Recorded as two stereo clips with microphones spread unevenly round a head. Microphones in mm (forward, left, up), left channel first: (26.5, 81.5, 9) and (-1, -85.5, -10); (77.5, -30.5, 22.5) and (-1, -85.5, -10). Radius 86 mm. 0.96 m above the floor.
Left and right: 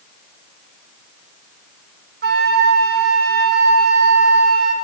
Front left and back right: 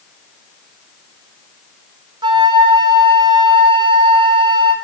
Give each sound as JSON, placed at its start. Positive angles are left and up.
{"t": 2.2, "sound": "a flute", "azimuth_deg": -125, "distance_m": 1.2}